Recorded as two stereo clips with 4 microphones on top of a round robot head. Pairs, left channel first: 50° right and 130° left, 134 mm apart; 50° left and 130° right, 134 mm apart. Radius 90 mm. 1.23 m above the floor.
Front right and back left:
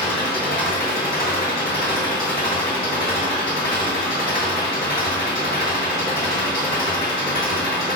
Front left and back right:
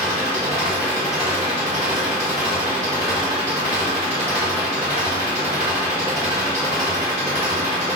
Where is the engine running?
65° right, 1.2 m.